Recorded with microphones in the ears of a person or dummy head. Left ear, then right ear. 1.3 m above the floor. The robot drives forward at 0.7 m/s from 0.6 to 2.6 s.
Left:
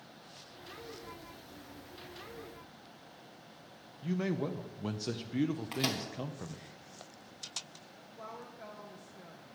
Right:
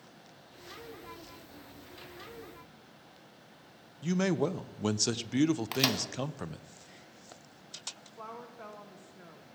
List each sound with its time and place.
4.0 s a man speaking: 80° right, 0.5 m
5.7 s a microwave: 35° right (ahead or behind), 1.2 m
8.0 s a woman speaking: 30° right (ahead or behind), 1.1 m